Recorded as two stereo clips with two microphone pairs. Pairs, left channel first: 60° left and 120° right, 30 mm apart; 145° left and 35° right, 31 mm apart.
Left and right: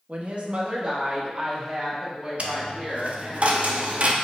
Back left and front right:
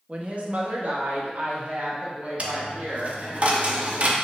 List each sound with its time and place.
0.1 s a woman speaking: 85° right, 0.7 m; by 3.4 s 50° right, 2.5 m
2.4 s a dropped coin: 80° right, 0.6 m